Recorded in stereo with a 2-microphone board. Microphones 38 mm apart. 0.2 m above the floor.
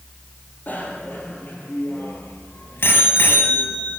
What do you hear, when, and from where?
0.7 s a bicycle bell: 50° left (ahead or behind), 4.5 m; by 4.0 s 60° left (ahead or behind), 3.5 m